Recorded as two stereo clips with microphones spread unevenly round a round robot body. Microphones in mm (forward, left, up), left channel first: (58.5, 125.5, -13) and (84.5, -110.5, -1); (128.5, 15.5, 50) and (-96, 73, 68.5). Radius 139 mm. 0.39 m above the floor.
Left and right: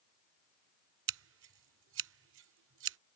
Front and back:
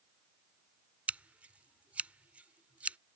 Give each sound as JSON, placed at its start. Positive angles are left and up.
{"t": 1.1, "sound": "scissors", "azimuth_deg": -105}